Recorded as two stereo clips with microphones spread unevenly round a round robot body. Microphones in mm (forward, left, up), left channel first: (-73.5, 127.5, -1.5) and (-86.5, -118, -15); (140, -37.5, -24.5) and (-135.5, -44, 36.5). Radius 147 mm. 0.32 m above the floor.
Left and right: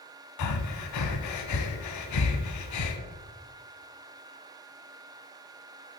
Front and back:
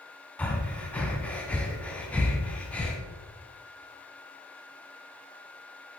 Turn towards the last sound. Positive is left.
turn(degrees=85)